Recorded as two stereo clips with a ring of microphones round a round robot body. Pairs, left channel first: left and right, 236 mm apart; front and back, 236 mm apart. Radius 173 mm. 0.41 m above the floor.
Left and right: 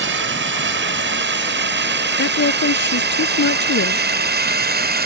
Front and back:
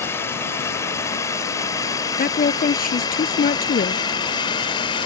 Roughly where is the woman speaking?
Ahead left.